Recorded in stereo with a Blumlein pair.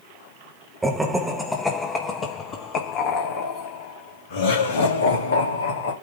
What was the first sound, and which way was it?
Laughter, 5° right.